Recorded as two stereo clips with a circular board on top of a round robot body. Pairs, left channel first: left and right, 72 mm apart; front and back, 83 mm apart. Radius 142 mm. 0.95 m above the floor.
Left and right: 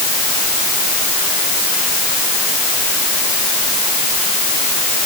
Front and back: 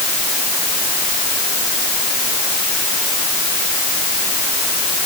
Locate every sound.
Only background noise.